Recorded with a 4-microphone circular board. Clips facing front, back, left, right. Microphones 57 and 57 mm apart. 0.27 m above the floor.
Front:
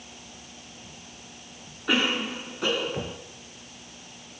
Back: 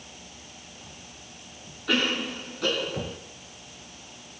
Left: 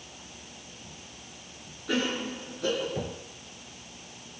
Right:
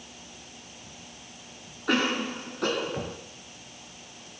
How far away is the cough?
About 3.5 m.